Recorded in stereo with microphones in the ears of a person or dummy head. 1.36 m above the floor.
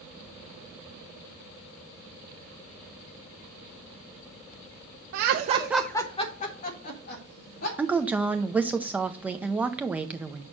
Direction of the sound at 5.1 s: 65° right (ahead or behind).